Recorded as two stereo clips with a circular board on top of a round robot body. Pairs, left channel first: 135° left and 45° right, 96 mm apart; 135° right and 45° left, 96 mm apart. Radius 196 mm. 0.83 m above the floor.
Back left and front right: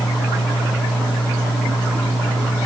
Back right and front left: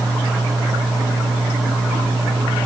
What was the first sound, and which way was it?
Only background noise.